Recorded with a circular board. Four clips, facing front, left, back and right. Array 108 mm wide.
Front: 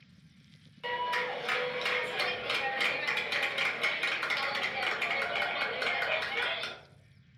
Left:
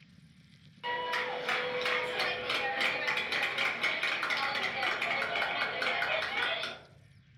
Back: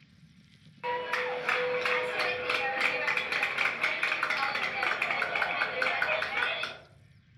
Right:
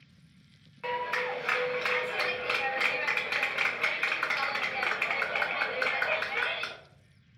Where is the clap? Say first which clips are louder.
Right 2 dB, back 1 dB; 145° right, 1.0 m.